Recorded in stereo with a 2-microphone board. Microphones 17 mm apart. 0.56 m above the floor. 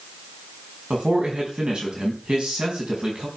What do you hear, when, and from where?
0.9 s a man speaking: 65° right (ahead or behind), 4 m